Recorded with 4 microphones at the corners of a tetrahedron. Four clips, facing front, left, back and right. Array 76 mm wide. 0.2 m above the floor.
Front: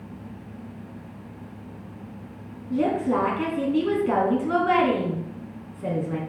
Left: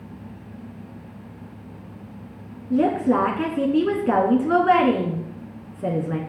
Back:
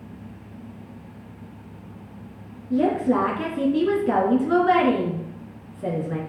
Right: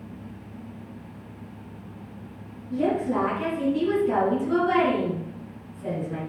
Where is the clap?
I don't hear a clap.